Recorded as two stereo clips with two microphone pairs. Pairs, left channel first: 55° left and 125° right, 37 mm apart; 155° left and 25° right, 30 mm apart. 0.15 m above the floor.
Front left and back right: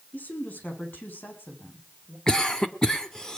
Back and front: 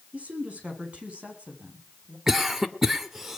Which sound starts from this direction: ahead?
A woman speaking, at 0.1 s.